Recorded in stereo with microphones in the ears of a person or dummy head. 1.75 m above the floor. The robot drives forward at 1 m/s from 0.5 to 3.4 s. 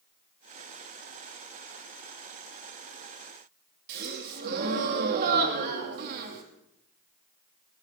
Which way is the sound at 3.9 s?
55° right (ahead or behind).